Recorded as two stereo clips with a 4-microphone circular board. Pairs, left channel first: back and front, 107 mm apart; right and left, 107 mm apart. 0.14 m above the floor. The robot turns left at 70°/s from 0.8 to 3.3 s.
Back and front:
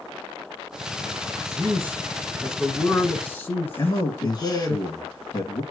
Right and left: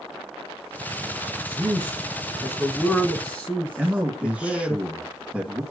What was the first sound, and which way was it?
A man speaking, 15° right.